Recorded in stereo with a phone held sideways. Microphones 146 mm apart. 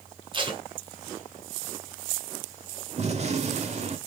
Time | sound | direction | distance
0.3 | tape being pulled | 30° right (ahead or behind) | 0.9 m
3.0 | a gunshot | 45° right (ahead or behind) | 0.8 m